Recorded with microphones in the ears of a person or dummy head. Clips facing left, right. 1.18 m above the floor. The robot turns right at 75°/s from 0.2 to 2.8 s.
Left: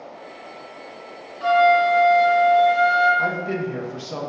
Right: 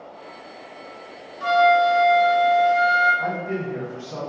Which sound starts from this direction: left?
A man speaking, at 3.2 s.